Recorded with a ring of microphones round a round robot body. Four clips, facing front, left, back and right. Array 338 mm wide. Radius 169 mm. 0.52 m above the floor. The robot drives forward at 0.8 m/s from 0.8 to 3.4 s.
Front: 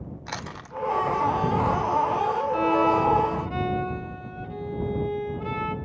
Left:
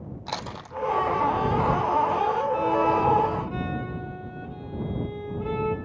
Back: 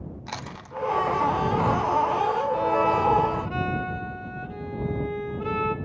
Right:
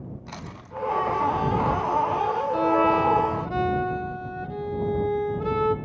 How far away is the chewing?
About 1.2 m.